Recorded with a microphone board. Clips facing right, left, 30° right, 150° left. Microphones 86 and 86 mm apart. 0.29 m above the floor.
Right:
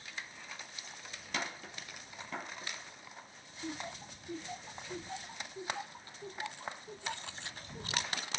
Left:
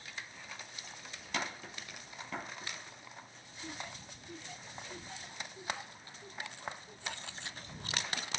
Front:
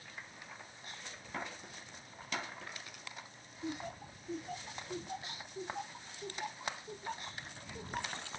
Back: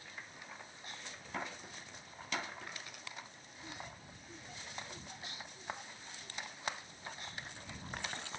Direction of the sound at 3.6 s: 40° right.